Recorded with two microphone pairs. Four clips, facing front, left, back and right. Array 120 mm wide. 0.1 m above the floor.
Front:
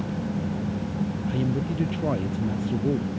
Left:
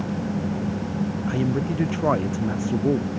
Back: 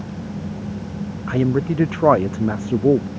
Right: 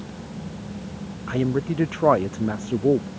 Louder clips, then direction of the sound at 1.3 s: Right 4 dB, back 11 dB; 165° right.